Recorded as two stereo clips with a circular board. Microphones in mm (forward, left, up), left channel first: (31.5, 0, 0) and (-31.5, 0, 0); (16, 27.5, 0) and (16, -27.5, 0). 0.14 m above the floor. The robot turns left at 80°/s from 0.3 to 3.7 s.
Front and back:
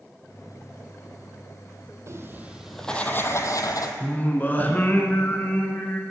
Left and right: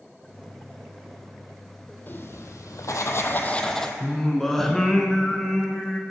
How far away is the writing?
About 0.8 m.